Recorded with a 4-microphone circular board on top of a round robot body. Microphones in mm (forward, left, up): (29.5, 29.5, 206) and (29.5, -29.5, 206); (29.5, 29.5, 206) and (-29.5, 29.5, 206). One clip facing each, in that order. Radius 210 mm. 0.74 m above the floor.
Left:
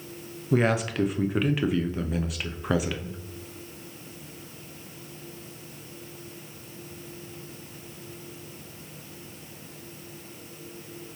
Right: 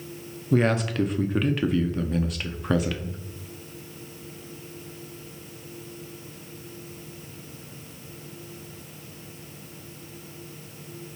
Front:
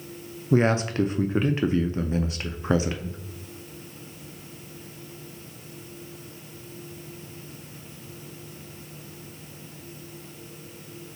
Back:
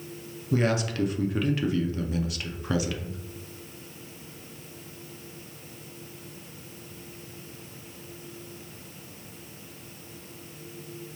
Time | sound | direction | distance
0.5 | a man speaking | 10° left | 0.6 m